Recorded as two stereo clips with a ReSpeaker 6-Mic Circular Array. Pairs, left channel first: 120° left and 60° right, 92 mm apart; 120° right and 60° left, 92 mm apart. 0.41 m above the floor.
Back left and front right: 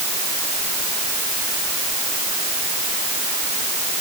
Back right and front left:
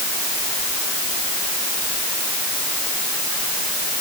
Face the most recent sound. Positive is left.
No sound to turn to.